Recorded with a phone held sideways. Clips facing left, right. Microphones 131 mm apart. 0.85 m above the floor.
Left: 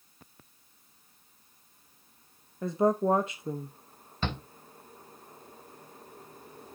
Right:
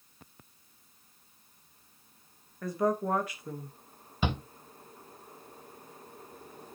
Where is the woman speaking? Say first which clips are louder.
Left 4 dB; 25° left (ahead or behind), 0.8 m.